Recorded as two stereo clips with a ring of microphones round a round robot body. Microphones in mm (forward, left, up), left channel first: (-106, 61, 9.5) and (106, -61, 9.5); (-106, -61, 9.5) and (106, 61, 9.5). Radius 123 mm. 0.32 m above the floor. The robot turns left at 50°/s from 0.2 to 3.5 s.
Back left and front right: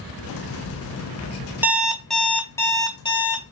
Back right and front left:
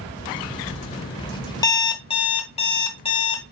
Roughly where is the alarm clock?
Right.